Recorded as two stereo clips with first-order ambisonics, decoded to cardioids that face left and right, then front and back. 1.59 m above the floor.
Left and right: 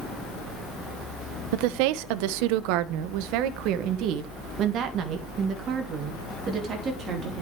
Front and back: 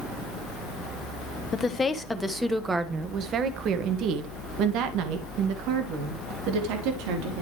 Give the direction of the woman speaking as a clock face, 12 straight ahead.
2 o'clock.